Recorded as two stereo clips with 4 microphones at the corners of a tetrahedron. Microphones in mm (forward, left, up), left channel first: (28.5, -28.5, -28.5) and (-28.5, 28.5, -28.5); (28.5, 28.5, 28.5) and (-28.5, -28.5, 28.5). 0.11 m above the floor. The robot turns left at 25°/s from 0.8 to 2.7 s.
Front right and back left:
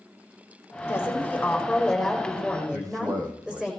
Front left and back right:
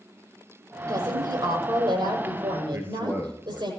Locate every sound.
0.9 s a woman speaking: 105° right, 5.5 m; by 3.7 s 150° right, 5.5 m
2.7 s a man speaking: 165° left, 2.5 m